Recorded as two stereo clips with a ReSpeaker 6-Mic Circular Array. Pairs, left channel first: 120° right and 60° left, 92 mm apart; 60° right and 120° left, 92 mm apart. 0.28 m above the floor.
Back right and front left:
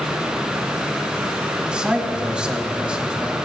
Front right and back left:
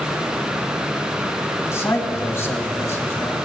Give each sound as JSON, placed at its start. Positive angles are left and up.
{"t": 1.7, "sound": "a man speaking", "azimuth_deg": -15, "distance_m": 2.0}